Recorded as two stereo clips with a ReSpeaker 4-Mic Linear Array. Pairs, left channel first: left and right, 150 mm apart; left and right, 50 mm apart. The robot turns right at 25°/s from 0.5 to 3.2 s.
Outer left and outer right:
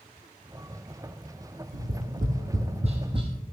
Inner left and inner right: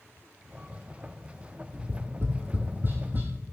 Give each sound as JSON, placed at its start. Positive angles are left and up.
{"t": 1.7, "sound": "tapping", "side_deg": -70, "distance_m": 1.9}